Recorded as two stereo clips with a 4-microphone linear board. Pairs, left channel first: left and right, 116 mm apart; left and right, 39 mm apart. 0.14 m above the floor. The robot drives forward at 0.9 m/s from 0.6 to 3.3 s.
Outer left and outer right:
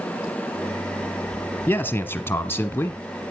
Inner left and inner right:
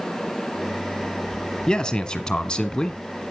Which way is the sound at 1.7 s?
20° left (ahead or behind).